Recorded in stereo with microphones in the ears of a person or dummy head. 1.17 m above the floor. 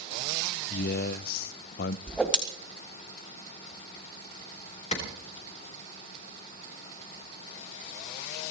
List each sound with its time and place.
0.7 s a man speaking: 55° left (ahead or behind), 0.5 m
2.1 s a whoosh: 5° left (ahead or behind), 1.9 m
4.9 s a clap: 35° left (ahead or behind), 4 m